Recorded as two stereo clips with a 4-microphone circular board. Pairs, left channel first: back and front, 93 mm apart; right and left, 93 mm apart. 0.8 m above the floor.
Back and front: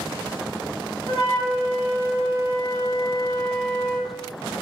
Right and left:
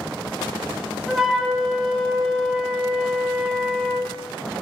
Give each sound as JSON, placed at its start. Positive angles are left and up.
{"t": 1.1, "sound": "a flute", "azimuth_deg": 175, "distance_m": 2.0}